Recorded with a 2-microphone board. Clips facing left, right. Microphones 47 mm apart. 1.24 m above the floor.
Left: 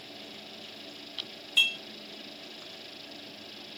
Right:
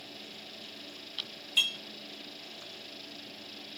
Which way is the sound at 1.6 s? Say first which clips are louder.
Left 3 dB; 20° left (ahead or behind).